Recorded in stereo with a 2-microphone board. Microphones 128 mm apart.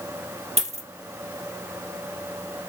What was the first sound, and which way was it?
A dropped coin, 60° right (ahead or behind).